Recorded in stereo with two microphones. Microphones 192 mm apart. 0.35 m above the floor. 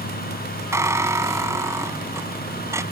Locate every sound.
0.7 s a squeak: 15° right (ahead or behind)